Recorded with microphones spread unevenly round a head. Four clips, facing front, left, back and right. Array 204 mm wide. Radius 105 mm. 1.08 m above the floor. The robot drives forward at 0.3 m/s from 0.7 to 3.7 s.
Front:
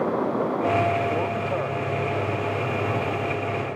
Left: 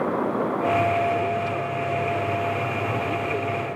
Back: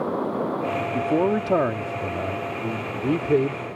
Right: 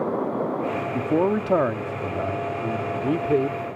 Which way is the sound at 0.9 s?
135° right.